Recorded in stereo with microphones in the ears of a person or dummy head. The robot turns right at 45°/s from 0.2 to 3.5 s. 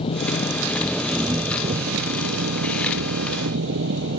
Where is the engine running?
145° left; by 4.2 s 70° right.